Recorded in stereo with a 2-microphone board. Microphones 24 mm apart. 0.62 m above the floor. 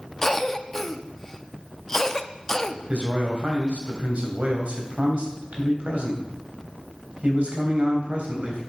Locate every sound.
0.2 s a cough: 20° left (ahead or behind), 0.6 m
2.9 s a man speaking: 60° right (ahead or behind), 3 m